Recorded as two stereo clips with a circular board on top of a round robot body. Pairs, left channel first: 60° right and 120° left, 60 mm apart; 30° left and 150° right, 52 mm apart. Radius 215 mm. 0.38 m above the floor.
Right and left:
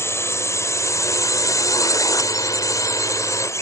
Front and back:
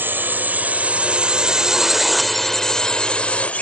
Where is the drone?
100° right; by 3.6 s 30° right.